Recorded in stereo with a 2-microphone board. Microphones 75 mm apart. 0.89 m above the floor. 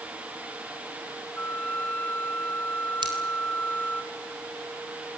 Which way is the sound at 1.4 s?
20° left (ahead or behind).